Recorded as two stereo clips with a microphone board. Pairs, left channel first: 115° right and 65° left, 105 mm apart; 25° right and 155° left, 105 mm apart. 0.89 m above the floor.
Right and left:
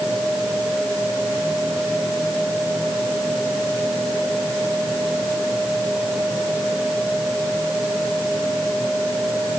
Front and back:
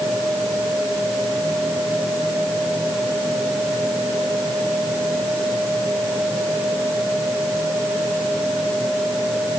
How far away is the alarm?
I don't hear an alarm.